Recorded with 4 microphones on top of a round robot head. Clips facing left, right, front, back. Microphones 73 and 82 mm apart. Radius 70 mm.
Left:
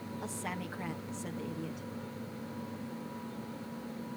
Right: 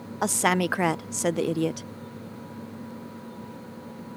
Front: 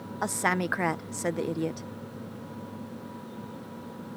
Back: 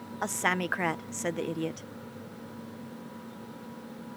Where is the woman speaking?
80° right.